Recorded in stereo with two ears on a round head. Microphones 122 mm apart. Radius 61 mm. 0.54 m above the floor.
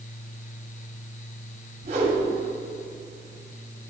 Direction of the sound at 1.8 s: 55° right (ahead or behind).